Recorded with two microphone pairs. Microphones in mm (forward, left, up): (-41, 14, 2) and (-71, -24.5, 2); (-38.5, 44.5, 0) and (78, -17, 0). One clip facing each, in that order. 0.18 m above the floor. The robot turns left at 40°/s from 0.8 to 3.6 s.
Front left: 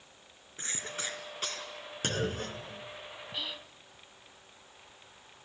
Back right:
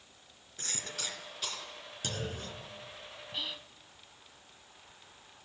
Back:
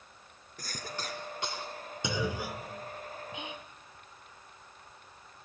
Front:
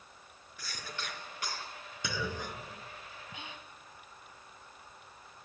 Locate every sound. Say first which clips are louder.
0.6 s a cough: front left 3 dB, back 4 dB; 115° left, 3 m; by 1.7 s 80° left, 3 m
2.0 s a clunk: front left 6 dB, back 4 dB; 85° left, 1.2 m; by 3.4 s 30° left, 1.2 m
3.3 s whispering: even, back 5 dB; 145° left, 1.0 m; by 3.8 s 135° left, 1.0 m